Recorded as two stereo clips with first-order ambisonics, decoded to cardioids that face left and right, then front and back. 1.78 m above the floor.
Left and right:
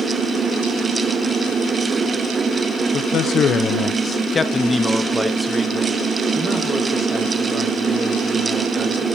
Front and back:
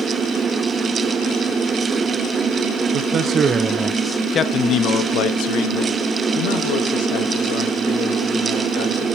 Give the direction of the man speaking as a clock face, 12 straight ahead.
7 o'clock.